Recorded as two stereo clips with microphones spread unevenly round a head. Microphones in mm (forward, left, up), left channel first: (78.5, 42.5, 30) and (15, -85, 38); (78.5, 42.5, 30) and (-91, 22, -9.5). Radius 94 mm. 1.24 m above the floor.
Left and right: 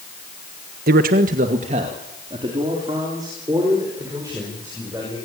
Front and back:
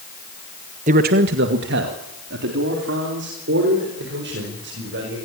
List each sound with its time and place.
0.9 s a man speaking: 130° right, 1.3 m; by 5.2 s 165° left, 7.5 m